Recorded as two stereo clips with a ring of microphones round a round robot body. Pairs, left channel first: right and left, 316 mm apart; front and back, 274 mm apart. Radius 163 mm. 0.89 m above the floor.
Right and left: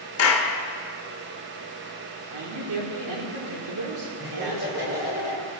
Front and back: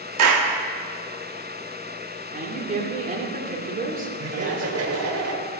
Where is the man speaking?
120° left, 2.5 m.